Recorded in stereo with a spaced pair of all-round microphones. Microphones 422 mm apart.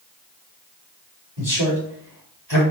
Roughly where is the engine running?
No engine running in this recording.